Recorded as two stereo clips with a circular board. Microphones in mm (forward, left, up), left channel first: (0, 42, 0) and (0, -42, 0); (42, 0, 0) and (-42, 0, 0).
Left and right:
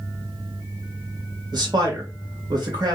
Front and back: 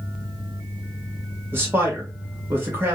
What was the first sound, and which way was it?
A man speaking, 120° right.